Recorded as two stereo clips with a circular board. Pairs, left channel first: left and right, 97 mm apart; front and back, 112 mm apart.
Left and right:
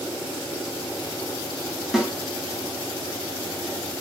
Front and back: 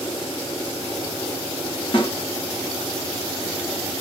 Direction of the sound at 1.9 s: Straight ahead.